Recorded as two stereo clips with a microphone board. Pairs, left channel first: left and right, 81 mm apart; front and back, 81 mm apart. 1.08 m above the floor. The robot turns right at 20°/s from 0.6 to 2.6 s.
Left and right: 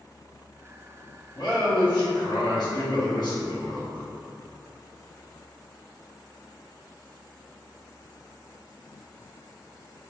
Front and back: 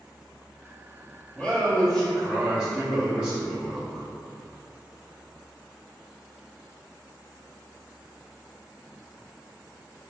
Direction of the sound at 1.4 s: 75° left.